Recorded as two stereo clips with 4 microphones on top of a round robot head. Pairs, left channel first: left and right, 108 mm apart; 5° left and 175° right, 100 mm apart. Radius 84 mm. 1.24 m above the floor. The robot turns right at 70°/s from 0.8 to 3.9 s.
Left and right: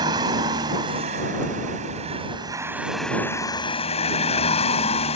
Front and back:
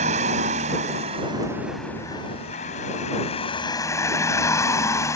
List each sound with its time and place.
0.0 s a vehicle: 155° right; by 5.2 s 65° left